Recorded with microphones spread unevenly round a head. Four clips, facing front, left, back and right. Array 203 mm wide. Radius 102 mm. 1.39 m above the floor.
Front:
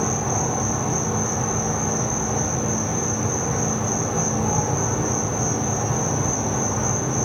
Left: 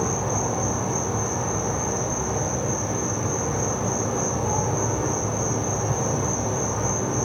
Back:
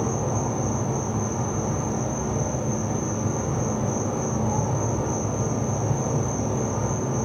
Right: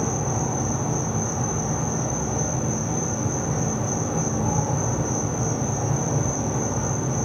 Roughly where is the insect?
Ahead left.